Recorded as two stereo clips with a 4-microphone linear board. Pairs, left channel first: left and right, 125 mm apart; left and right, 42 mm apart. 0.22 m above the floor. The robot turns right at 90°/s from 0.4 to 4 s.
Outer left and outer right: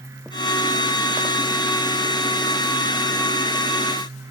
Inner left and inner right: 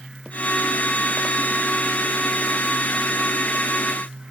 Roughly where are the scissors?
I don't hear scissors.